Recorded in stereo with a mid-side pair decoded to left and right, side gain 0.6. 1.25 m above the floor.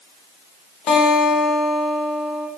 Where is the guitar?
60° left, 0.6 m.